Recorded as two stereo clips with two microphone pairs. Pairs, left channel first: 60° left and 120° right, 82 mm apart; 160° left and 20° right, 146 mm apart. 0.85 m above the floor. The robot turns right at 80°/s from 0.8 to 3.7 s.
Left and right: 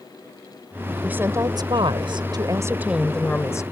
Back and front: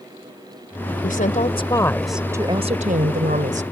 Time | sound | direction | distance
1.0 | a woman speaking | 165° left | ?